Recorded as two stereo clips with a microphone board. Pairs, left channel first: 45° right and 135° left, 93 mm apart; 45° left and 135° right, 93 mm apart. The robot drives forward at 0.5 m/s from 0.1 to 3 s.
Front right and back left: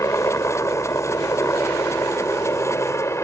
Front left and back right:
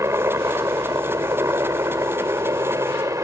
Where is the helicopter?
90° right; by 3.2 s 95° right.